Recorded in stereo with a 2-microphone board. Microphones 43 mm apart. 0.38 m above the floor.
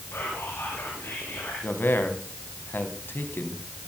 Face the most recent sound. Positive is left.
turn(degrees=55)  # may be behind; listen again after turning